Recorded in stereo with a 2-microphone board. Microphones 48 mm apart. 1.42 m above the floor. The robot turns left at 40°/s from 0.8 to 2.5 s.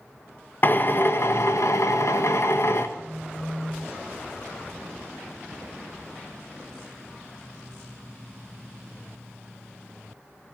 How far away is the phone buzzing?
About 9 m.